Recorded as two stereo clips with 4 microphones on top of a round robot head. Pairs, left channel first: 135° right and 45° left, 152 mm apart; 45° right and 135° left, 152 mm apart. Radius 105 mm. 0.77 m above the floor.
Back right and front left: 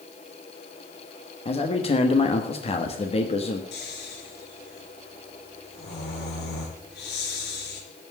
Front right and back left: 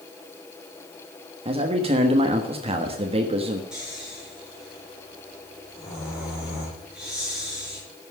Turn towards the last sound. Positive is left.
turn(degrees=-140)